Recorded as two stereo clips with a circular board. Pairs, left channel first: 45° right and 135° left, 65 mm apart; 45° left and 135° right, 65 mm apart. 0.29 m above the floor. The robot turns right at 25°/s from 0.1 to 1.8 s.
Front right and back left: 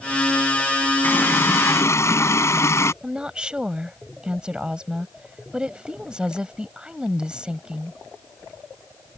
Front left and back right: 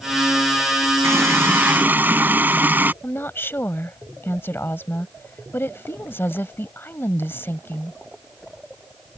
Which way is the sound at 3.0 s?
70° left.